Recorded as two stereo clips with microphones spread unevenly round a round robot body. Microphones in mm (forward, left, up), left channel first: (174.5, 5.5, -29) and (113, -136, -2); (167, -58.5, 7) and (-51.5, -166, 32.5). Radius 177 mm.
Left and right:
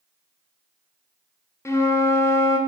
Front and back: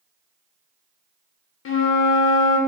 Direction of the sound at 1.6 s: 5° right.